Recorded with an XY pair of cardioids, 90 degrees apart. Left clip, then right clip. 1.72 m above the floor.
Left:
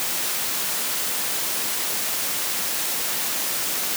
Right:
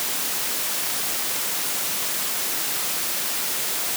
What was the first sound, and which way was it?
Only background noise.